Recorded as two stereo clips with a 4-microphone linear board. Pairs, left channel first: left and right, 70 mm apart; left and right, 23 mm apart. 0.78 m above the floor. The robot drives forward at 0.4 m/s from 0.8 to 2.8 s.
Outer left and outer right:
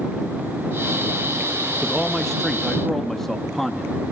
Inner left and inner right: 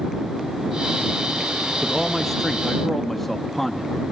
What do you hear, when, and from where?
1.8 s a man speaking: 5° left (ahead or behind), 1.0 m